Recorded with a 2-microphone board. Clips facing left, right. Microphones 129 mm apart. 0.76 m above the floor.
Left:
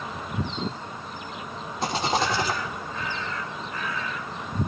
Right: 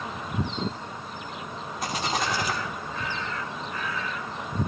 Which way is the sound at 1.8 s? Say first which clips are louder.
Left 4 dB; 30° left (ahead or behind).